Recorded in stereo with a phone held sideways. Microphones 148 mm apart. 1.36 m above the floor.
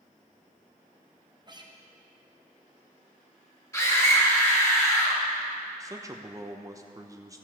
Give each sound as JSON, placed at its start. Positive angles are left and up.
{"t": 1.5, "sound": "a guitar", "side_deg": -30, "distance_m": 0.9}
{"t": 3.7, "sound": "a scream", "side_deg": 20, "distance_m": 3.0}
{"t": 5.8, "sound": "a man speaking", "side_deg": -20, "distance_m": 0.9}